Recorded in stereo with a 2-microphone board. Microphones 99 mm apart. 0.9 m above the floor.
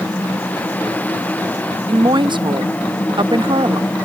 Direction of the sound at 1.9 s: 50° right (ahead or behind).